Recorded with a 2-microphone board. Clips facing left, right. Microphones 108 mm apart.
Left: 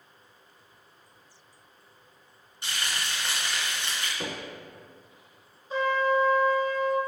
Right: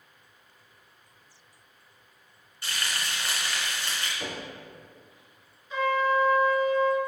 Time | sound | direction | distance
2.6 | frying | 20° left (ahead or behind) | 2.5 m
4.2 | knocking | 40° left (ahead or behind) | 1.5 m
5.7 | a trumpet | 35° left (ahead or behind) | 1.2 m